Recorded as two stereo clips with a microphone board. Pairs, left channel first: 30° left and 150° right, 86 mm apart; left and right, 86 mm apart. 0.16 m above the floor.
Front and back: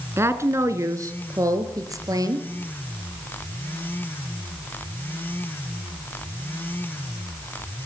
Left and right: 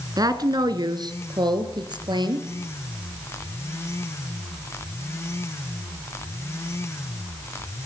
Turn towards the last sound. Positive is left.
turn(degrees=-110)